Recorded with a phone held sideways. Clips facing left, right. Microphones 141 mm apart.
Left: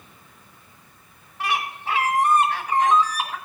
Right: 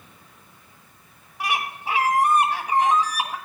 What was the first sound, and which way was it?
A bird, 10° right (ahead or behind).